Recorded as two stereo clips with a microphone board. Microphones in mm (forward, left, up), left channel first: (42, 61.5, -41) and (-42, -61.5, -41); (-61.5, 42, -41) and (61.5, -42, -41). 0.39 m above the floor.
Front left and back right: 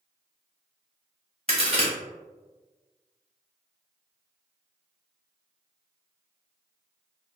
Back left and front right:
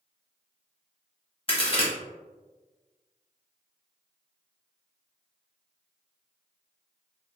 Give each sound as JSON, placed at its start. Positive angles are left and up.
{"t": 1.5, "sound": "a crack", "azimuth_deg": -165, "distance_m": 0.9}